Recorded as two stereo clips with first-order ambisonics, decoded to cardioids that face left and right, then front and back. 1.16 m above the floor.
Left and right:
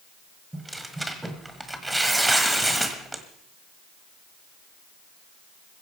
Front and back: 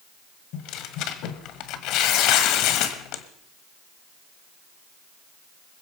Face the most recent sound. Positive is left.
turn(degrees=-5)